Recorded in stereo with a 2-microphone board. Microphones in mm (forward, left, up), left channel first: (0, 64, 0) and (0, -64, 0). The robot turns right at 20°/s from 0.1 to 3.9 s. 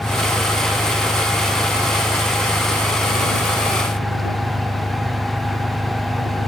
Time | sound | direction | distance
0.0 | an engine running | 150° left | ?